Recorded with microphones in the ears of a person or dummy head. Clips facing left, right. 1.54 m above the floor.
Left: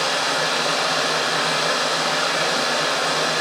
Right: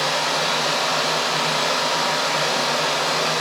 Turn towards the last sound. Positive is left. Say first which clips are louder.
# even
turn(degrees=-5)  # may be behind; listen again after turning